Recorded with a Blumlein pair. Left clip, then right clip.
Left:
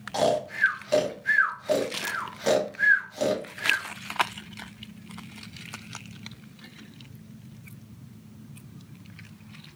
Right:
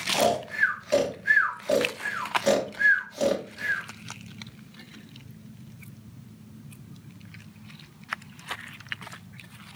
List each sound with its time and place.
0.1 s snoring: straight ahead, 0.7 m